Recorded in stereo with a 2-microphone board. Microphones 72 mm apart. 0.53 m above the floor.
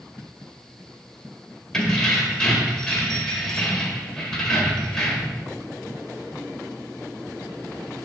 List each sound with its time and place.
1.7 s keys jangling: 10° left (ahead or behind), 1.4 m